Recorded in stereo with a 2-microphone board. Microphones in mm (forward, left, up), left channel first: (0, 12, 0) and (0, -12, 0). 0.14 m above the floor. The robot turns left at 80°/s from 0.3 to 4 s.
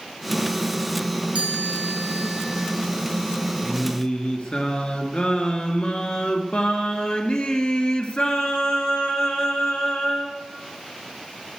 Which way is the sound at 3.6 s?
150° left.